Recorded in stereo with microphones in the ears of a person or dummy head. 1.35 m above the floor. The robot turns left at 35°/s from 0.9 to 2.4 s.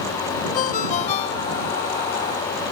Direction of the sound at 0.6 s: 55° left.